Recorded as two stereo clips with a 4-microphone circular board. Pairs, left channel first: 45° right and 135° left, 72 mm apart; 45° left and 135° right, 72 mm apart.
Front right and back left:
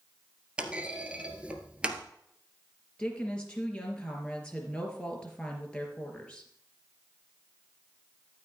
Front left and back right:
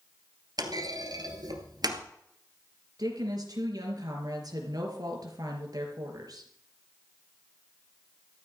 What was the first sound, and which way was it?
A clunk, 150° right.